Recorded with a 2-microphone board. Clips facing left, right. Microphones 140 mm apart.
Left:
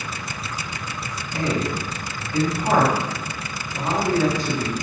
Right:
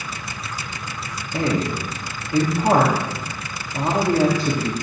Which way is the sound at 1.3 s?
30° right (ahead or behind).